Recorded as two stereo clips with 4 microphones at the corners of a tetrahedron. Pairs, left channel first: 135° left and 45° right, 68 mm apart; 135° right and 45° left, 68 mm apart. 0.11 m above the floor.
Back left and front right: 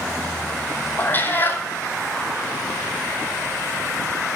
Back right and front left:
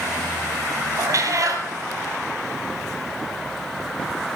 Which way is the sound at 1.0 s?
75° left.